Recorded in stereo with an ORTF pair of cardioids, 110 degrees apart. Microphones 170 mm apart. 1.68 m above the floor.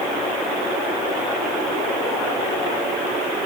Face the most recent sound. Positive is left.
No sound to turn to.